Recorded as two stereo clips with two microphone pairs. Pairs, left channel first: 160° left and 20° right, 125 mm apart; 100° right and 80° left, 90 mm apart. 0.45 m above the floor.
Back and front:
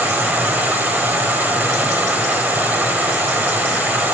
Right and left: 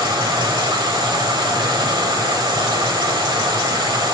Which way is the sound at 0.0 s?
55° left.